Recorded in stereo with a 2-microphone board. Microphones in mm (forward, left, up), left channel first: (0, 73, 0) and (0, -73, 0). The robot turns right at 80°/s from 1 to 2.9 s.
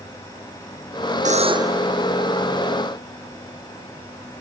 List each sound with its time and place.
1.2 s a buzzer: 55° right; by 1.9 s 10° right